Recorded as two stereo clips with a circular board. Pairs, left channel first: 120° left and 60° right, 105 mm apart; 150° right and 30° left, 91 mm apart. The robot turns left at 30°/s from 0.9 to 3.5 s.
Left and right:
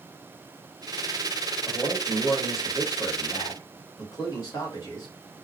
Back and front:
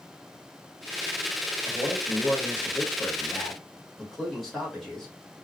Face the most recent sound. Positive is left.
turn(degrees=125)